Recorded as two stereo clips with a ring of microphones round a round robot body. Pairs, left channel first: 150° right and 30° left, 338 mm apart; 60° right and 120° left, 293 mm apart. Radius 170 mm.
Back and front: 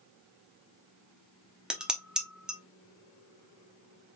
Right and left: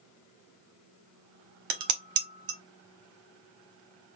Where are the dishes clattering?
120° left, 0.9 m.